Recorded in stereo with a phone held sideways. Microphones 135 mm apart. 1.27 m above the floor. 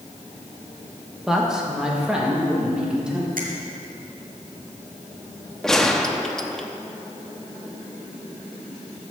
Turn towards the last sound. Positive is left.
turn(degrees=5)  # may be behind; listen again after turning